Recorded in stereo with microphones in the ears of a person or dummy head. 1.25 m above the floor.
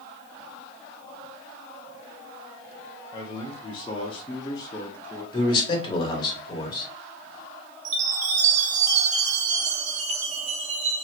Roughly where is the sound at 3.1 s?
Left.